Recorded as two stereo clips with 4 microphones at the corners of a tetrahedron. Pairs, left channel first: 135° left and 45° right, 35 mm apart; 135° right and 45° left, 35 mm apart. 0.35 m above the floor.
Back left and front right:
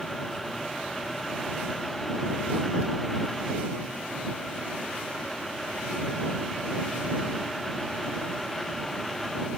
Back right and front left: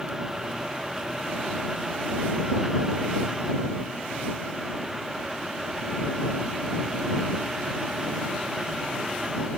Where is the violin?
No violin in this recording.